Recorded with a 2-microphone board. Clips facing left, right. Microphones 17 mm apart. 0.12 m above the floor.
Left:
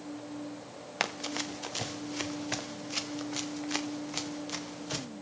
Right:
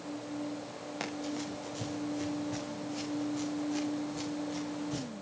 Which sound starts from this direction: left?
Running footsteps, at 1.0 s.